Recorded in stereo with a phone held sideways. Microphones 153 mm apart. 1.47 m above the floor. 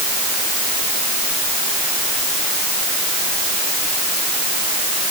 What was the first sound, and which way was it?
Only background noise.